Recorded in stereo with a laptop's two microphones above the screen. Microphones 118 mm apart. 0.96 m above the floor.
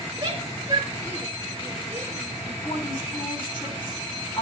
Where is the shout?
35° right (ahead or behind), 1.7 m; by 2.3 s 25° right (ahead or behind), 4 m.